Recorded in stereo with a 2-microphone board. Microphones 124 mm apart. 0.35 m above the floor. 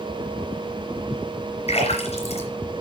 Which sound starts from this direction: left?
A splash, at 1.7 s.